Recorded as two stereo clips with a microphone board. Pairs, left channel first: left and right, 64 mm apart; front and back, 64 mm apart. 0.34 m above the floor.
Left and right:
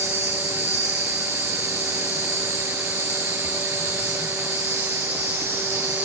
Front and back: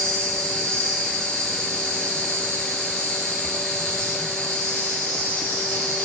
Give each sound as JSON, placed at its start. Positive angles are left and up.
{"t": 0.0, "sound": "an insect", "azimuth_deg": -150, "distance_m": 6.0}